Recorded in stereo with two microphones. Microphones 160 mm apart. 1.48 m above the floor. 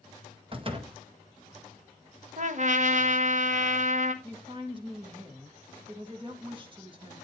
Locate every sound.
0.5 s a door slam: 35° right (ahead or behind), 1.6 m
2.4 s a trumpet: 55° right (ahead or behind), 1.4 m
4.2 s a woman speaking: 35° right (ahead or behind), 2 m